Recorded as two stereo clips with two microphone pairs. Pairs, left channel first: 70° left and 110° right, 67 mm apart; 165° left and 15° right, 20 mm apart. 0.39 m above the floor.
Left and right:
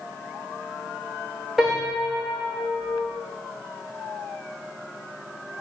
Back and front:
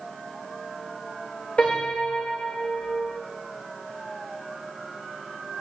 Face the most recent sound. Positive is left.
turn(degrees=165)